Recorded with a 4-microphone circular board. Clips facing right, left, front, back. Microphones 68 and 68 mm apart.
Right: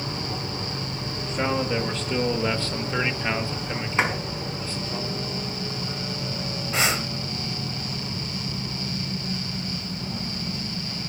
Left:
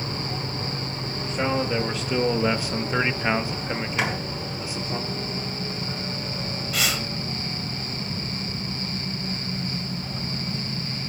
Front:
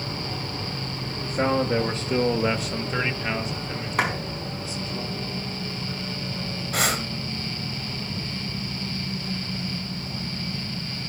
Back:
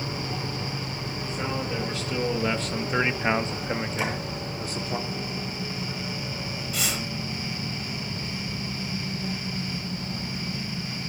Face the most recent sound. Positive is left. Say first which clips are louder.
# right 3 dB, front 7 dB
turn(degrees=-30)